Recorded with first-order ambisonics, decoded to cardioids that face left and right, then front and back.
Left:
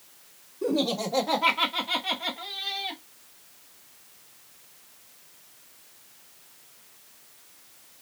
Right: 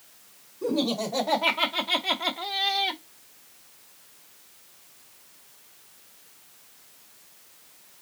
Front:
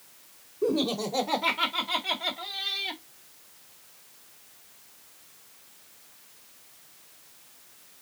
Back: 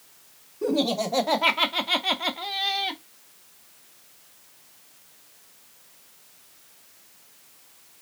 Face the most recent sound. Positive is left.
turn(degrees=-130)